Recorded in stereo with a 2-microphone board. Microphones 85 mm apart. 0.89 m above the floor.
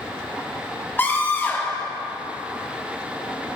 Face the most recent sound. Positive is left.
turn(degrees=25)  # may be behind; listen again after turning